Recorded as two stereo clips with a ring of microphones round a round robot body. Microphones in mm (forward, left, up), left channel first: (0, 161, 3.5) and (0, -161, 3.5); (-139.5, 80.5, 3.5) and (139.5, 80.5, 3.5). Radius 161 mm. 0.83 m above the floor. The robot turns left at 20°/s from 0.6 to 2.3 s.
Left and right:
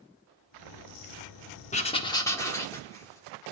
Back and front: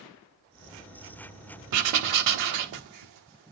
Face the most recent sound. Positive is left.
turn(degrees=10)